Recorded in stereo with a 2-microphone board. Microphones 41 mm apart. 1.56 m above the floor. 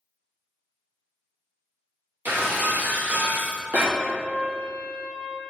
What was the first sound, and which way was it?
Breaking glass, 50° right (ahead or behind).